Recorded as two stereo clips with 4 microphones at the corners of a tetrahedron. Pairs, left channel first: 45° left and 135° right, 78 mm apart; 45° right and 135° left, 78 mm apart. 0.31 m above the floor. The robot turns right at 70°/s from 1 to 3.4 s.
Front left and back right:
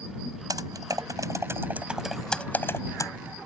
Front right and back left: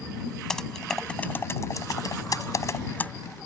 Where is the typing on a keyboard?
125° right; by 3.1 s 25° left.